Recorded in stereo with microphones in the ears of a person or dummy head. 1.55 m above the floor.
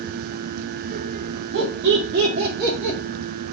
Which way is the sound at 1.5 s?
65° right (ahead or behind).